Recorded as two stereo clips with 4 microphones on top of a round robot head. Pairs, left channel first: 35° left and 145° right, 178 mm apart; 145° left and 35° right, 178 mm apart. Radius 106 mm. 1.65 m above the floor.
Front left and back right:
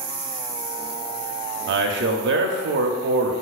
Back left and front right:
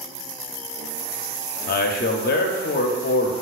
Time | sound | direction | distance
1.7 | a man speaking | 170° right | 0.5 m